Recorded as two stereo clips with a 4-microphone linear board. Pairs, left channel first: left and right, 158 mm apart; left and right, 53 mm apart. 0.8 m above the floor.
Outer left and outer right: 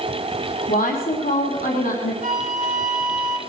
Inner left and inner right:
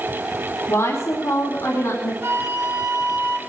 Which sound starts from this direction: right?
A flute, at 2.2 s.